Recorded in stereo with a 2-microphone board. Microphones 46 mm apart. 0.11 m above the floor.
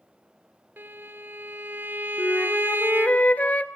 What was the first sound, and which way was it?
A violin, 45° right (ahead or behind).